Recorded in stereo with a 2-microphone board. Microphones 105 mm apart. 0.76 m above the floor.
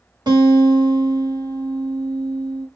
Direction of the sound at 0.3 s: 40° right (ahead or behind).